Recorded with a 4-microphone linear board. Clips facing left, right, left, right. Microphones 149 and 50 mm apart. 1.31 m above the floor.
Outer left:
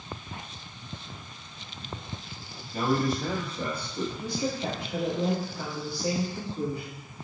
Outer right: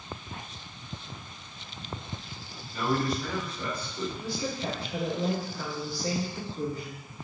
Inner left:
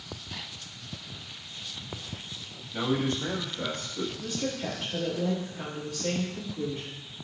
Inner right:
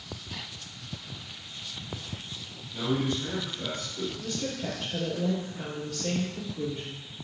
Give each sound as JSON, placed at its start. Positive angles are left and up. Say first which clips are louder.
{"t": 2.7, "sound": "a man speaking", "louder": "outer left 2 dB, inner left 1 dB", "side_deg": 45, "distance_m": 2.5}
{"t": 4.2, "sound": "a woman speaking", "louder": "outer left 3 dB, inner left 1 dB", "side_deg": 20, "distance_m": 2.5}